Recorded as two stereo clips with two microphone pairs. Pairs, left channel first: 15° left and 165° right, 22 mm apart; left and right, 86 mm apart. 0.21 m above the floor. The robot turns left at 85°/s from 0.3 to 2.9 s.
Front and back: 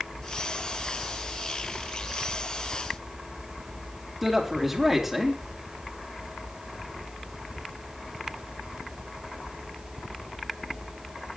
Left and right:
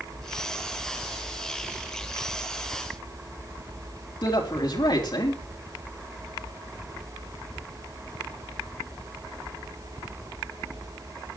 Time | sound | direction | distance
4.2 | a man speaking | 115° left | 3.5 m